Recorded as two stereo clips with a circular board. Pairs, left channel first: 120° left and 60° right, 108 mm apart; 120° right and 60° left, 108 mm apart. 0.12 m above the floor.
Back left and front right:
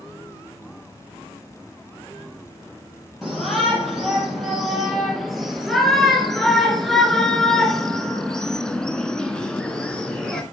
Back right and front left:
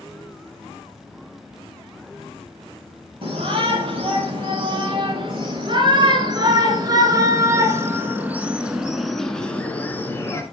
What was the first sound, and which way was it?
A shout, 30° left.